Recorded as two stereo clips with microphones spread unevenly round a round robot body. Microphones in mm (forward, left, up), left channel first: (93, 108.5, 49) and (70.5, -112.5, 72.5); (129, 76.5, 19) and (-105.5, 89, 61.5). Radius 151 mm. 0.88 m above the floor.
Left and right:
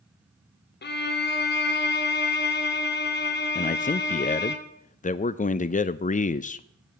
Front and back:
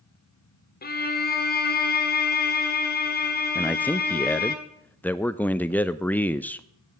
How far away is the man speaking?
About 0.6 m.